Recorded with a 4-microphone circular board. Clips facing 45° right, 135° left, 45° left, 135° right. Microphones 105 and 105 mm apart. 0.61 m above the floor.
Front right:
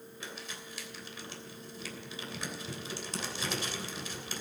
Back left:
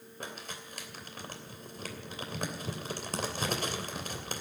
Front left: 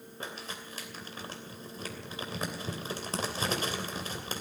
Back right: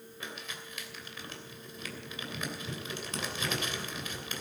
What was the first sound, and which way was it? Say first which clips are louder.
Crumpling: back left 3 dB, front left 3 dB; 95° left.